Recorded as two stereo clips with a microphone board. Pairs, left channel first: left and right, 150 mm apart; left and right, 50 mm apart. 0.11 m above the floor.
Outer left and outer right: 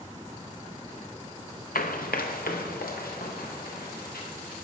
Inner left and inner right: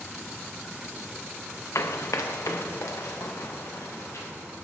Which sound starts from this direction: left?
Running footsteps, at 1.8 s.